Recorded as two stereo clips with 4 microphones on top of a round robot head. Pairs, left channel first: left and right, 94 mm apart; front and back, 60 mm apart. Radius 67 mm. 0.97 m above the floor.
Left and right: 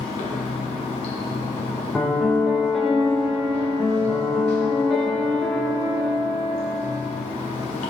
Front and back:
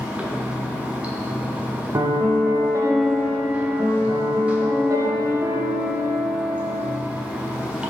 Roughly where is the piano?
Behind.